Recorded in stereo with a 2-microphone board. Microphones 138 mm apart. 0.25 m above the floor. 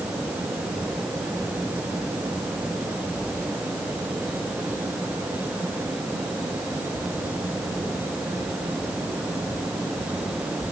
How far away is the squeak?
I don't hear a squeak.